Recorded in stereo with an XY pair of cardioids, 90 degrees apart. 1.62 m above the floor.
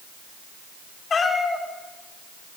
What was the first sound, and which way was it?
A cat meowing, 40° left.